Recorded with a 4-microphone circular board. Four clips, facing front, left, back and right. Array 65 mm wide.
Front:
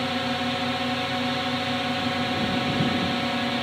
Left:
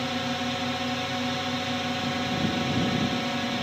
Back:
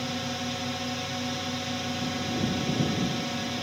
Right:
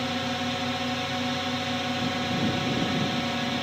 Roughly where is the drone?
Ahead.